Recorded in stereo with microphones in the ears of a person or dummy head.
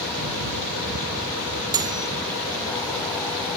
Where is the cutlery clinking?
20° right (ahead or behind).